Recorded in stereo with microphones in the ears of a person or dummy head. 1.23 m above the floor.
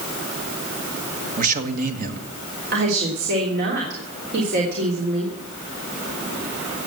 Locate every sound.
1.4 s a man speaking: 45° right (ahead or behind), 1.7 m
2.7 s a woman speaking: 60° right (ahead or behind), 3 m